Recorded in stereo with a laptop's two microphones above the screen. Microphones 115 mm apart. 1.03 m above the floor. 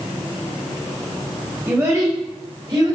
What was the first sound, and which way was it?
A child speaking, 25° right (ahead or behind).